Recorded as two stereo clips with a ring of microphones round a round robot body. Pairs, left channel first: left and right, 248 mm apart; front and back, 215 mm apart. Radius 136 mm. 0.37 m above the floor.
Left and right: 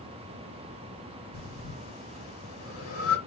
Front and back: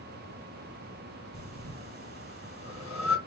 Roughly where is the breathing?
Behind left.